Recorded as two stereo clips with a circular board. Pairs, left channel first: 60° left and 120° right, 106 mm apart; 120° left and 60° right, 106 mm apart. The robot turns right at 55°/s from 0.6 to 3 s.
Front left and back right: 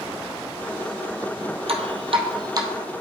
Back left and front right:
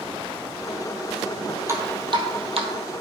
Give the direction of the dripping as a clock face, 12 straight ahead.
4 o'clock.